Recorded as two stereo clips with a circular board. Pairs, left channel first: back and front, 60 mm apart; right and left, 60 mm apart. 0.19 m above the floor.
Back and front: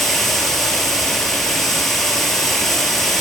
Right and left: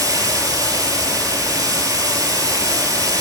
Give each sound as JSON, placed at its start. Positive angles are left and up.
{"t": 0.0, "sound": "running water", "azimuth_deg": 95, "distance_m": 1.3}